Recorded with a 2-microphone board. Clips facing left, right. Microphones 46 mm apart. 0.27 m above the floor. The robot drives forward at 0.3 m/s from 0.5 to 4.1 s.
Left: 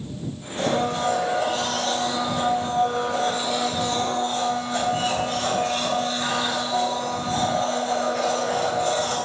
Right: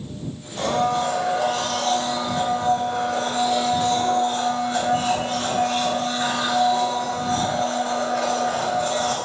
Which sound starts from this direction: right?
A blender, at 0.6 s.